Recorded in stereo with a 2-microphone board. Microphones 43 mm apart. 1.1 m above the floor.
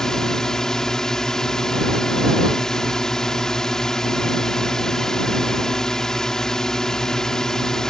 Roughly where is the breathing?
I don't hear breathing.